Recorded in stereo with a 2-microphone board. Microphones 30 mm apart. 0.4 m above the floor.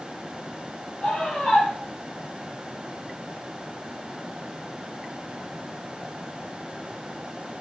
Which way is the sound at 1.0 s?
30° left (ahead or behind).